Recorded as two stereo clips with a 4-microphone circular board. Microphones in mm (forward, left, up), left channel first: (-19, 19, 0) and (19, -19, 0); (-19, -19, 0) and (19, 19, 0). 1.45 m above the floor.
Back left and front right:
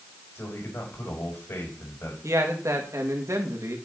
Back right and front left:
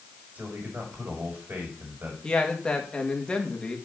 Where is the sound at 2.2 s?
60° right, 2.5 m.